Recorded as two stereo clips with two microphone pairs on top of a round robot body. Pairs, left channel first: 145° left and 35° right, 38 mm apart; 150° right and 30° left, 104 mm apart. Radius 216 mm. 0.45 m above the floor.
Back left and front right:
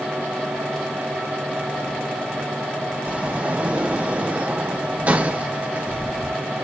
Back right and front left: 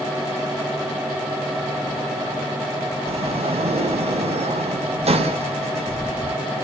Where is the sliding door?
15° left, 4 m.